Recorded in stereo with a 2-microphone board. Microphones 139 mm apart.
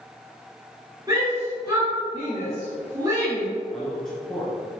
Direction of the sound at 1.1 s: 25° right (ahead or behind).